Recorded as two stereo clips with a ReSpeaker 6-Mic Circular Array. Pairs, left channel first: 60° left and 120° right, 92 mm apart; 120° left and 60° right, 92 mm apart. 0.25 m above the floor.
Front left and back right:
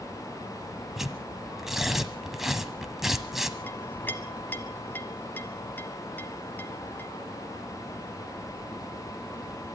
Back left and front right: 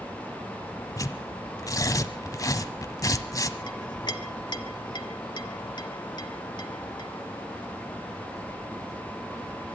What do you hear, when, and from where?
1.0 s tearing paper: 155° left, 1.3 m
3.7 s a clink: 120° left, 1.4 m